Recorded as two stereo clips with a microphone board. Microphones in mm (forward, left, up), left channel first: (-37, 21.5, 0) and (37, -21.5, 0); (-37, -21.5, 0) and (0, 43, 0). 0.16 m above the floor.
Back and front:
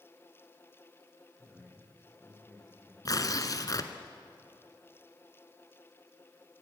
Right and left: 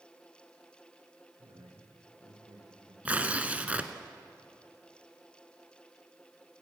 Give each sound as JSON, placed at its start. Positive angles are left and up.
{"t": 1.4, "sound": "a man speaking", "azimuth_deg": 65, "distance_m": 7.0}
{"t": 3.0, "sound": "tearing paper", "azimuth_deg": 125, "distance_m": 1.3}